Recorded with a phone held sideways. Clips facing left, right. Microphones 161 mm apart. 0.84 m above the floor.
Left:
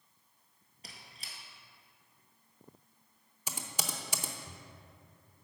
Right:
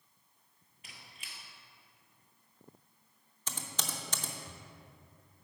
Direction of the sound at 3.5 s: 10° left (ahead or behind).